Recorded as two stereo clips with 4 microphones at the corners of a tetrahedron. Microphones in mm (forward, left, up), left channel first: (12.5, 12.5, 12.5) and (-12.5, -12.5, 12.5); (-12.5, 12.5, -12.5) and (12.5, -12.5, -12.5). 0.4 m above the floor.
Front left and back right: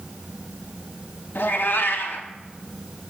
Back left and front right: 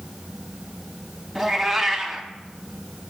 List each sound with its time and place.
1.4 s a cat meowing: 40° left, 0.6 m